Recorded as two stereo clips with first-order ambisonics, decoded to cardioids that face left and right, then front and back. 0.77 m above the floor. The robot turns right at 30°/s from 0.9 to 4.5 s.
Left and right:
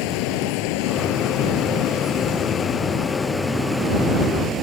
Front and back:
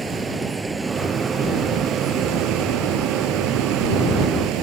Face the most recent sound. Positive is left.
turn(degrees=-150)